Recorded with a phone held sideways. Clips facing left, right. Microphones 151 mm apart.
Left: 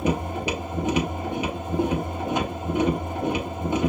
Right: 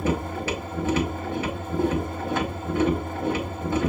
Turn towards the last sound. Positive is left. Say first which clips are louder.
# left 1 dB
turn(degrees=20)  # may be behind; listen again after turning